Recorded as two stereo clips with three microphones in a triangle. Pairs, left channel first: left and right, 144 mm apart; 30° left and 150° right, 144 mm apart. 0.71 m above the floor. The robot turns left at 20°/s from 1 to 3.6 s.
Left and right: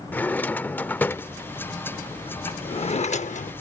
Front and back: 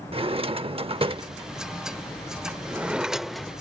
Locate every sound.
0.1 s a drawer: 170° left; by 3.5 s 115° left